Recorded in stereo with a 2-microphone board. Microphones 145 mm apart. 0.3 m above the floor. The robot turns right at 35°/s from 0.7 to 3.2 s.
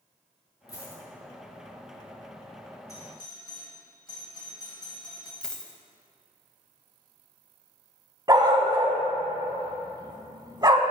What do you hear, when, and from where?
0.7 s a dropped coin: 25° left (ahead or behind), 1.2 m; by 1.0 s 15° left (ahead or behind), 1.2 m
2.9 s a doorbell: 25° left (ahead or behind), 2.0 m; by 5.3 s 30° left (ahead or behind), 2.0 m
5.4 s a dropped coin: 5° left (ahead or behind), 0.6 m
8.3 s a dog barking: 30° right (ahead or behind), 0.6 m